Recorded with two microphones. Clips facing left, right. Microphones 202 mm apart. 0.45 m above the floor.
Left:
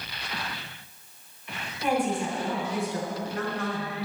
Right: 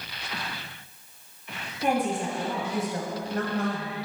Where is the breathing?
I don't hear breathing.